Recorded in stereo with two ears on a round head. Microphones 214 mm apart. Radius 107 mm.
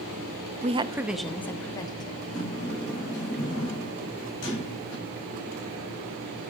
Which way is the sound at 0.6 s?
30° right (ahead or behind).